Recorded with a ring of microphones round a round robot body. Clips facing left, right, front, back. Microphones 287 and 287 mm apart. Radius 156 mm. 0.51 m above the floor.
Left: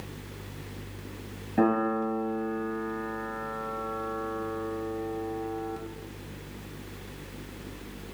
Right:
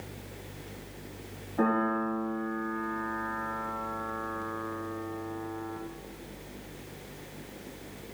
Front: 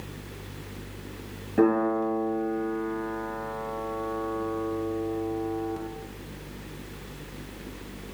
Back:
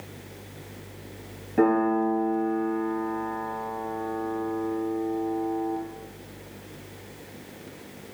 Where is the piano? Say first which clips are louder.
Left 3 dB, back 1 dB; 90° left, 3 m.